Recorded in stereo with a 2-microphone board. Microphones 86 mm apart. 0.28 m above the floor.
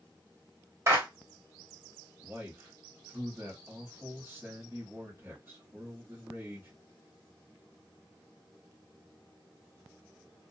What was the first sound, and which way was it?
A clap, 35° right (ahead or behind).